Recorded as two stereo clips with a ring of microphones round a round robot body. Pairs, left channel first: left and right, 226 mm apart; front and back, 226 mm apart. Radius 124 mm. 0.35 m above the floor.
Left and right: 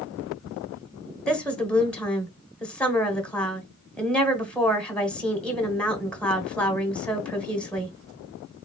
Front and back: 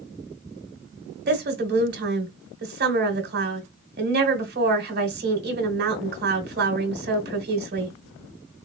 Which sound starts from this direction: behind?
A woman speaking, at 1.3 s.